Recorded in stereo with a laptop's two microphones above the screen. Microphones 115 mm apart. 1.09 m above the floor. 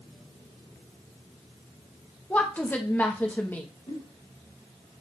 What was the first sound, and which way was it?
A woman speaking, 15° left (ahead or behind).